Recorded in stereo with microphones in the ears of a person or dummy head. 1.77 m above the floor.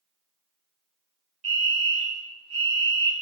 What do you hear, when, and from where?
1.4 s a fire alarm: 30° right (ahead or behind), 1.1 m